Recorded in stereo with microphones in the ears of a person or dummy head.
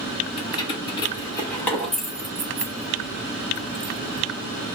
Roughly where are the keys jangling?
Left.